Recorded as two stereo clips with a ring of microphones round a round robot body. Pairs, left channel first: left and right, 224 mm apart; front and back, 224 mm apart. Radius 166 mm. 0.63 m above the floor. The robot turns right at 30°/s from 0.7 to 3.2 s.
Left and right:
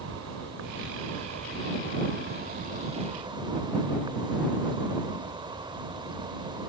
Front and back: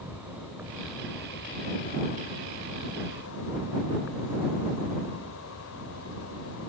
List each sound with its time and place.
0.0 s an insect: 95° right; by 6.7 s 20° right